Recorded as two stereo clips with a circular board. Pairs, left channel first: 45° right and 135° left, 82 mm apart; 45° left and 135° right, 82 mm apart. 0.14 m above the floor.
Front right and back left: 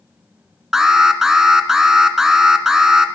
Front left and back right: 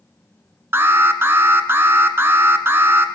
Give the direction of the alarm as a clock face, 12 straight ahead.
5 o'clock.